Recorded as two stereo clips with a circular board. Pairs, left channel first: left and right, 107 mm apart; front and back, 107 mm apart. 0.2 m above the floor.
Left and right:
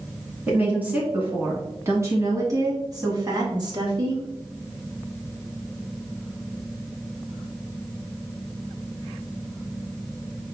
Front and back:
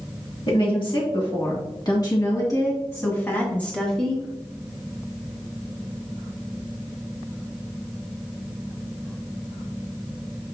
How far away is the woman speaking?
About 2.5 m.